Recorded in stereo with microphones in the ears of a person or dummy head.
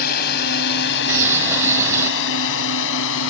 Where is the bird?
10° right (ahead or behind).